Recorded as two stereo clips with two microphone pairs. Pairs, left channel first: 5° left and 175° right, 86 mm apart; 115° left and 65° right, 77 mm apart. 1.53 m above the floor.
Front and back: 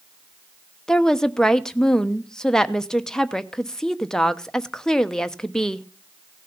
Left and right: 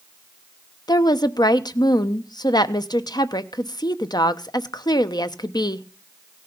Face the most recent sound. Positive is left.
turn(degrees=90)